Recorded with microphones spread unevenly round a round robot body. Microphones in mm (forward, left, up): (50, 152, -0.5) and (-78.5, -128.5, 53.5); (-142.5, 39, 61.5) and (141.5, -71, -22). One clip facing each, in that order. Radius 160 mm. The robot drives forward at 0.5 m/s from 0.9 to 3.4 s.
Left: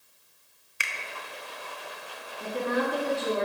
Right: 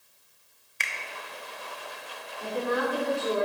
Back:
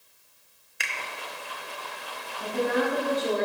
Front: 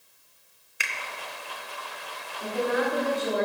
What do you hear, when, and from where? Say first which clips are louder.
0.8 s a finger snap: even, even; 20° left, 0.5 m; by 0.9 s 25° left, 0.5 m
2.4 s a woman speaking: even, back 1 dB; 125° left, 3 m; by 3.5 s 130° left, 3.5 m